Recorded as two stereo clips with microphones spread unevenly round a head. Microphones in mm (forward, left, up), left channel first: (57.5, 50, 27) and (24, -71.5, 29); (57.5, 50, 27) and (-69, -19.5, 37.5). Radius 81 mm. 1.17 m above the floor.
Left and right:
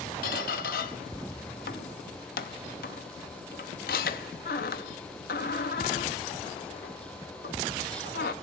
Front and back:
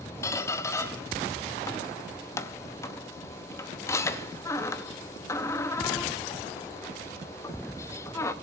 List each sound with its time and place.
0.2 s a squeak: 100° left, 0.8 m